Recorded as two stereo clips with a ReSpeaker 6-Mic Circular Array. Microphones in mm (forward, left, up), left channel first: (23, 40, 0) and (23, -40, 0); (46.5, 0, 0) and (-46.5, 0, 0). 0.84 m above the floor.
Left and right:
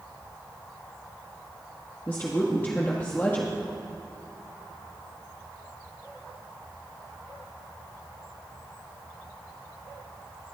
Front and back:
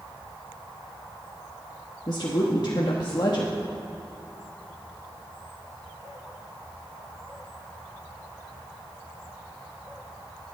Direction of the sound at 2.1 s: 30° left.